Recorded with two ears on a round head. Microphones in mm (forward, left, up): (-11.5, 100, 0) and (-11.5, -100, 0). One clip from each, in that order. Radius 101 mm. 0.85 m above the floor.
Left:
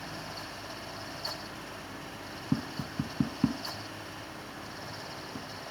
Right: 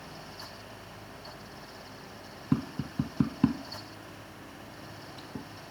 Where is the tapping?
10° right (ahead or behind).